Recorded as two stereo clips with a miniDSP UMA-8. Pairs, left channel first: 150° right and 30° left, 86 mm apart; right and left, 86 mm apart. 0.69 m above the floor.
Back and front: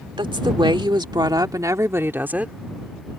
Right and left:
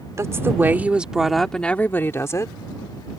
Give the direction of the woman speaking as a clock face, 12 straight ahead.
11 o'clock.